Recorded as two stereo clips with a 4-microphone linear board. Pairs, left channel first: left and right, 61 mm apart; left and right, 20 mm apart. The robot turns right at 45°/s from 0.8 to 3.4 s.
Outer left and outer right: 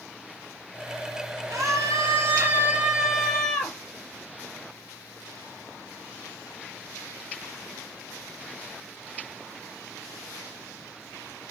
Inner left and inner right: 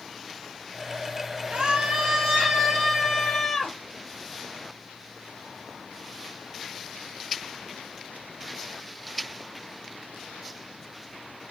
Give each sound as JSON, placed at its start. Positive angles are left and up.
{"t": 1.5, "sound": "a scream", "azimuth_deg": -75, "distance_m": 5.0}